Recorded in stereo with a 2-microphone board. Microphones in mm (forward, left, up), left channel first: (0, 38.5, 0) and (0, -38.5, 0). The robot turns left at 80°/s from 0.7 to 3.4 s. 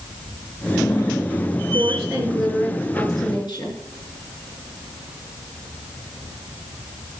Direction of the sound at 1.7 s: 120° right.